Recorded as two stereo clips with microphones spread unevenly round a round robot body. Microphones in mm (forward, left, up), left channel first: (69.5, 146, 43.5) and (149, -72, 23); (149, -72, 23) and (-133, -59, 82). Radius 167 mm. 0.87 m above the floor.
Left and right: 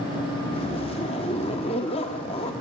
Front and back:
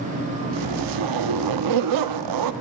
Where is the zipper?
175° right, 1.3 m.